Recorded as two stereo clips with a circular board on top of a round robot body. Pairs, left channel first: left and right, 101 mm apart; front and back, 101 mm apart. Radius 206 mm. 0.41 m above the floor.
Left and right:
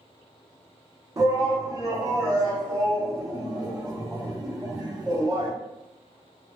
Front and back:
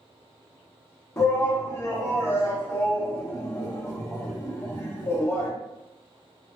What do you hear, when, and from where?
1.2 s a shout: 50° right, 1.4 m